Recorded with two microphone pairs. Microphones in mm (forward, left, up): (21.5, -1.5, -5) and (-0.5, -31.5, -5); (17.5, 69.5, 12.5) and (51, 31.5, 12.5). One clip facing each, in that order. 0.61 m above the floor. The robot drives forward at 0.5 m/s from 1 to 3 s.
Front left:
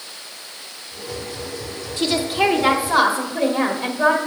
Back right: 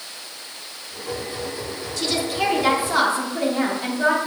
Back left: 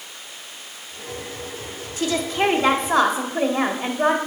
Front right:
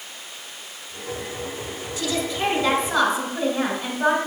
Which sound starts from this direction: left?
A woman speaking, at 2.0 s.